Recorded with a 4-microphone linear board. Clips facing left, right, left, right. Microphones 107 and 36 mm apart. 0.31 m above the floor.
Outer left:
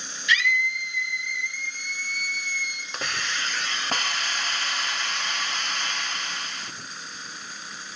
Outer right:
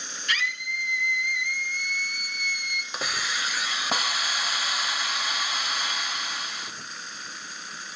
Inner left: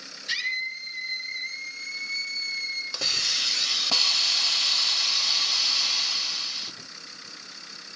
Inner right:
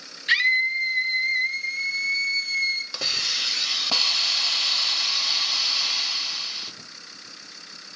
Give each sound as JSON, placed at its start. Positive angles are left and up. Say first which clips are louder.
{"t": 0.3, "sound": "a scream", "louder": "outer left 6 dB, inner right 9 dB", "side_deg": -45, "distance_m": 4.0}
{"t": 2.9, "sound": "a hiss", "louder": "even, inner right 1 dB", "side_deg": -5, "distance_m": 1.0}